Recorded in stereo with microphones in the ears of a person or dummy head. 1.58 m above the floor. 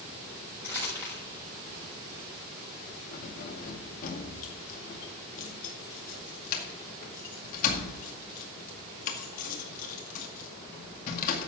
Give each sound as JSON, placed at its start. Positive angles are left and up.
{"t": 0.6, "sound": "crumpling", "side_deg": 15, "distance_m": 7.0}
{"t": 3.1, "sound": "keys jangling", "side_deg": 45, "distance_m": 2.0}